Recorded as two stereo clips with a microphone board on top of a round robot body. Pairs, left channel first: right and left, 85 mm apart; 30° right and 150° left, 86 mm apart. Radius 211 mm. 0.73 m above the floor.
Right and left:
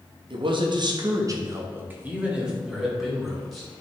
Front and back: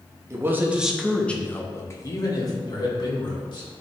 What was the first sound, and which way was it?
A man speaking, 95° left.